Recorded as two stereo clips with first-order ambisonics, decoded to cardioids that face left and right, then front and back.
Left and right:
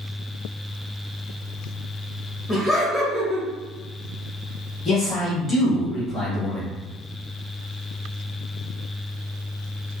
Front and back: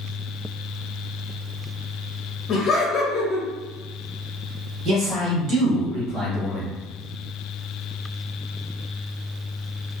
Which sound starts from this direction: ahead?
Laughter, at 2.5 s.